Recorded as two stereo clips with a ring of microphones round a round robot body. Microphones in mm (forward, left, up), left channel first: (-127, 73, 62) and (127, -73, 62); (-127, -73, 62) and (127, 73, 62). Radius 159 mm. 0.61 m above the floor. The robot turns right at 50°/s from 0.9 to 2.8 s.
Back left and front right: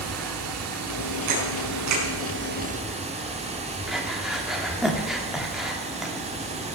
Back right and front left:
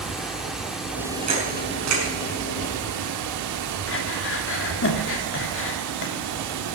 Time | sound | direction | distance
0.0 | running water | 60° right | 1.2 m
1.3 | a camera shutter | 35° right | 5.5 m
3.9 | breathing | 120° right | 1.9 m